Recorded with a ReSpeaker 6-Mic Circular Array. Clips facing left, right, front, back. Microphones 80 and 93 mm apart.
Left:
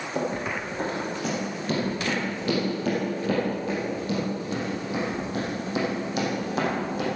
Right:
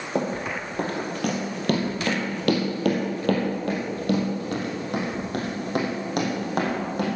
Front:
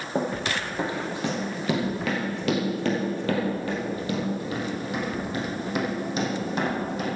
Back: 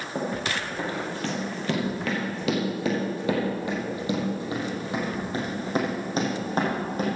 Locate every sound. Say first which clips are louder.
0.1 s running footsteps: right 2 dB, front 2 dB; 60° right, 3 m; by 7.1 s 130° right, 4.5 m